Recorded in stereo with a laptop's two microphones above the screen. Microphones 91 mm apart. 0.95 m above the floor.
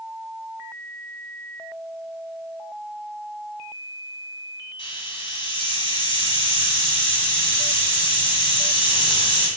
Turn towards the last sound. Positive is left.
turn(degrees=70)  # may be behind; listen again after turning